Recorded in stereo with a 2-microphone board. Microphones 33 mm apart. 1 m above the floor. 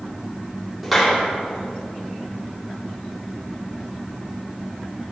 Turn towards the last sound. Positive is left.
turn(degrees=0)  # may be behind; listen again after turning